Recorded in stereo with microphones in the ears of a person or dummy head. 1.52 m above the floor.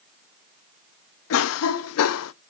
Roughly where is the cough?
Left.